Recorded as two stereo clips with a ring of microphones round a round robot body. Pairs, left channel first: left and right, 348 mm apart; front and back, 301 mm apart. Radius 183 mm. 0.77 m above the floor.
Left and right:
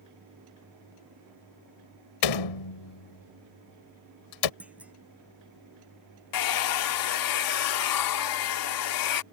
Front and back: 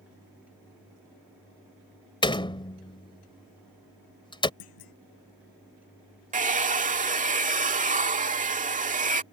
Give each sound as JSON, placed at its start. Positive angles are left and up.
{"t": 2.2, "sound": "a door slam", "azimuth_deg": 75}
{"t": 4.6, "sound": "a clunk", "azimuth_deg": -5}
{"t": 6.3, "sound": "a hair dryer", "azimuth_deg": 115}